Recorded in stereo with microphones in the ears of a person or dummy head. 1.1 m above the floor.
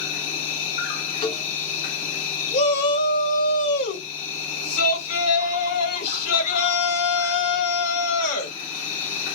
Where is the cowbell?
30° left (ahead or behind), 0.7 m.